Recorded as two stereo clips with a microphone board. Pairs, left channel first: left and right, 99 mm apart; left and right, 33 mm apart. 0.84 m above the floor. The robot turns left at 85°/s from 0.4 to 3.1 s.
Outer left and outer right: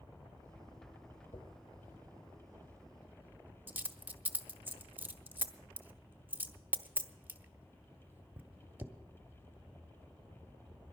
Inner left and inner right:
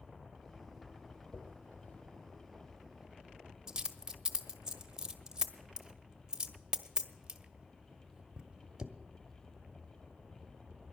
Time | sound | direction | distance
1.3 | a dropped coin | 50° left (ahead or behind) | 0.9 m